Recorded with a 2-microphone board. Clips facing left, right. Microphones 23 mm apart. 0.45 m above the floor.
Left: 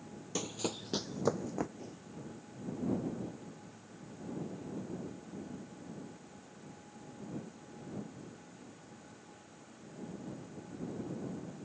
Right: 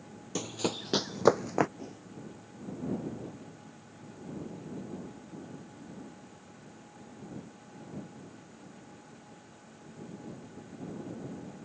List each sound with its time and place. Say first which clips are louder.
0.3 s running footsteps: right 4 dB; 5° right (ahead or behind); by 1.7 s 60° right (ahead or behind)
1.8 s a whoosh: right 3 dB; 20° right (ahead or behind)